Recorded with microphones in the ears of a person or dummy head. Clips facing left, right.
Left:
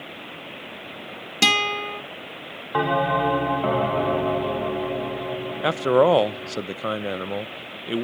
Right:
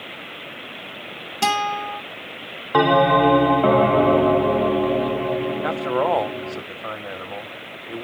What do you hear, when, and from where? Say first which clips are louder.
1.4 s a guitar: right 3 dB; 25° left (ahead or behind), 1.6 m
2.7 s a bell: right 6 dB; 50° right (ahead or behind), 0.5 m
5.6 s a man speaking: left 8 dB; 40° left (ahead or behind), 0.6 m